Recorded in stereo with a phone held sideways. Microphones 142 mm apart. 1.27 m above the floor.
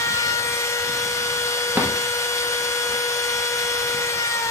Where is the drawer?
10° right (ahead or behind), 0.8 m.